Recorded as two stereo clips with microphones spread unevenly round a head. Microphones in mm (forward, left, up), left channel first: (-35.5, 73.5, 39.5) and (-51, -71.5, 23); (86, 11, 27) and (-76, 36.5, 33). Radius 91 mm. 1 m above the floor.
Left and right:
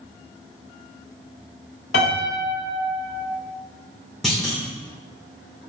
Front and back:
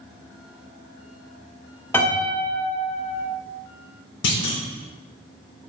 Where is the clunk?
5° right, 2 m.